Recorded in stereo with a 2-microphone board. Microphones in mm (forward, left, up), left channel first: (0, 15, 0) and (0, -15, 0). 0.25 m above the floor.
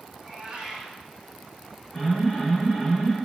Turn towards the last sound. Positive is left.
turn(degrees=15)  # may be behind; listen again after turning